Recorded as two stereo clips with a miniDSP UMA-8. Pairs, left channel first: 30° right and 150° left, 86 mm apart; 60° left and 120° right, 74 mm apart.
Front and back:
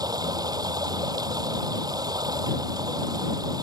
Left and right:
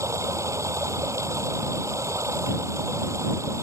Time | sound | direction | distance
0.0 | running water | 170° right | ?